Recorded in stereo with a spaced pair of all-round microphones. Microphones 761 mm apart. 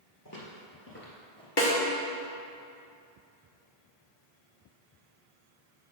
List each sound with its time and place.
0.2 s footsteps: 25° left (ahead or behind), 1.6 m; by 1.5 s 5° left (ahead or behind), 1.5 m
1.6 s a snare drum: 35° left (ahead or behind), 1.1 m